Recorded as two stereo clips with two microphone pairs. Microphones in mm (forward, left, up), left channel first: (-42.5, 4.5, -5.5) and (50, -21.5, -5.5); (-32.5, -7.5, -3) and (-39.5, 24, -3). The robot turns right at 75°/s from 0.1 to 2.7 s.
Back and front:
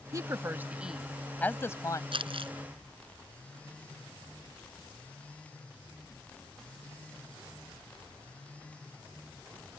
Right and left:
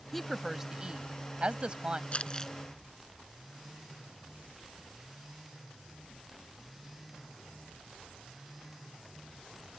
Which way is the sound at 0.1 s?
5° left.